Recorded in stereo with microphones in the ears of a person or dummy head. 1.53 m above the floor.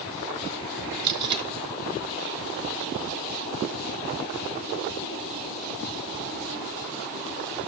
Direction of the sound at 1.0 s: 25° right (ahead or behind).